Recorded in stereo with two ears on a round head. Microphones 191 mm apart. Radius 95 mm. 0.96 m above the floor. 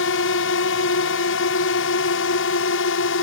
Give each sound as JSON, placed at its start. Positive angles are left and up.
{"t": 0.0, "sound": "a drone", "side_deg": 60}